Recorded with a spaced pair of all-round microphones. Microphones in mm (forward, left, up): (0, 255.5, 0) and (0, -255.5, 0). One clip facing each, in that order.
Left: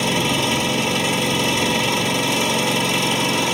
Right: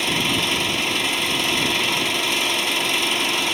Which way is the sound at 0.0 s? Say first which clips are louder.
Left 4 dB; 65° left (ahead or behind).